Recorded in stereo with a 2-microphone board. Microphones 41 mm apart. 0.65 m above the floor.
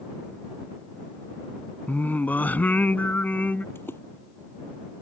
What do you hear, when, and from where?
1.9 s singing: 45° left (ahead or behind)
3.8 s a splash: 75° left (ahead or behind)